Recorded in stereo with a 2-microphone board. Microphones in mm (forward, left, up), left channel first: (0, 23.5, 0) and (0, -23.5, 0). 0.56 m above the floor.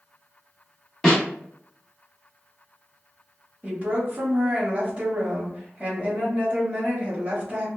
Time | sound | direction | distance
1.0 | a snare drum | 10° left (ahead or behind) | 1.0 m
3.6 | a woman speaking | 30° right (ahead or behind) | 1.3 m